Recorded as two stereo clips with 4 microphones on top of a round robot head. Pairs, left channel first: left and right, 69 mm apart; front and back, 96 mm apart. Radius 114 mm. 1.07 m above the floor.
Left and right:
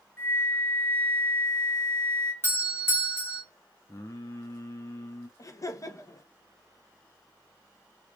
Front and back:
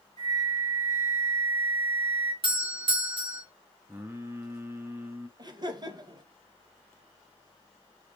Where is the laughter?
130° left, 1.6 m.